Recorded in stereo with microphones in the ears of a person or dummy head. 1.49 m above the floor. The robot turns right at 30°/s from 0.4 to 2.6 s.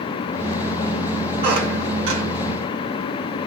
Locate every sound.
1.4 s a squeak: 45° right (ahead or behind), 0.7 m; by 2.2 s 60° right (ahead or behind), 0.7 m